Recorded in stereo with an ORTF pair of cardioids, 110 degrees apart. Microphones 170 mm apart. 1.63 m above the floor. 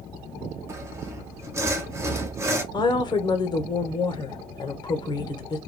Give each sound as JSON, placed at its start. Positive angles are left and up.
{"t": 0.7, "sound": "sawing", "azimuth_deg": -15, "distance_m": 0.8}
{"t": 2.7, "sound": "a woman speaking", "azimuth_deg": 25, "distance_m": 0.9}